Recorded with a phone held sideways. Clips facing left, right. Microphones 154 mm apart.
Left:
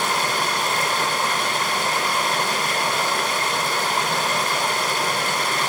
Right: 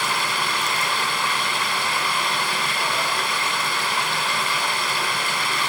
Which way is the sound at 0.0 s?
40° left (ahead or behind).